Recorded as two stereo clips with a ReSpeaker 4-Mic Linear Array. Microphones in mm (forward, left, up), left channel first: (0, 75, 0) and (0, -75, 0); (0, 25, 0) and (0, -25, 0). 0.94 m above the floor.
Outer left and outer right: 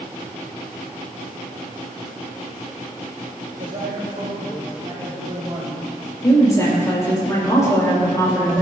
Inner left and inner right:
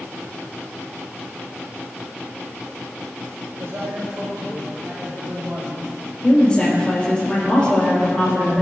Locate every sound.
3.6 s a man speaking: 60° right (ahead or behind), 3.5 m; by 5.9 s 30° right (ahead or behind), 5 m
6.2 s a woman speaking: 20° left (ahead or behind), 4 m